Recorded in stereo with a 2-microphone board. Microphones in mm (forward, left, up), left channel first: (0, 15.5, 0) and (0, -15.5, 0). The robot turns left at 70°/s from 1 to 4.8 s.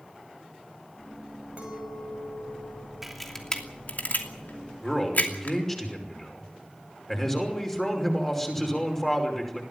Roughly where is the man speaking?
Centre.